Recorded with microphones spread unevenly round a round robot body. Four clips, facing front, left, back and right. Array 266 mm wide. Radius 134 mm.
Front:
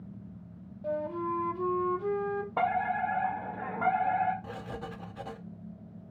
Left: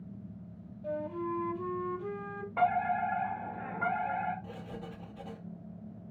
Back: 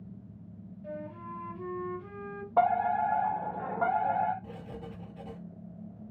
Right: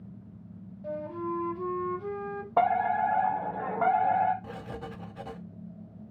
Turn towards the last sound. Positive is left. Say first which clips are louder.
# right 4 dB, front 3 dB
turn(degrees=-50)